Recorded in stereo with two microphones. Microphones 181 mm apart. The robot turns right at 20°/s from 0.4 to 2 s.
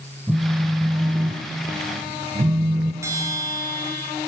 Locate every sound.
0.3 s a phone buzzing: straight behind, 0.7 m; by 2.9 s 150° right, 0.7 m
3.0 s a bell: 15° right (ahead or behind), 1.7 m